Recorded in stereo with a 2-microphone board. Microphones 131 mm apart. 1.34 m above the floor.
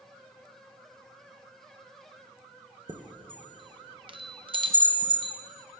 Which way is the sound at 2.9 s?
40° right (ahead or behind).